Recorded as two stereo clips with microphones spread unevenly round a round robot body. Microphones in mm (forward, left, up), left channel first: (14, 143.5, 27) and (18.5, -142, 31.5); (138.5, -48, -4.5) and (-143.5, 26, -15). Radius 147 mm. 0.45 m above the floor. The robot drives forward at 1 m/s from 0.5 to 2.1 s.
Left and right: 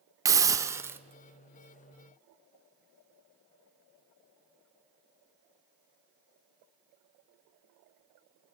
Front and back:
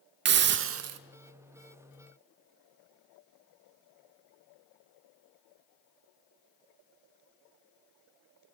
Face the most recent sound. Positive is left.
turn(degrees=-175)